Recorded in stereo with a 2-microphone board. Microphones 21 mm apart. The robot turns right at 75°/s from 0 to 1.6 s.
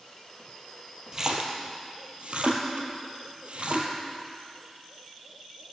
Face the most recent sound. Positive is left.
turn(degrees=-60)  # may be behind; listen again after turning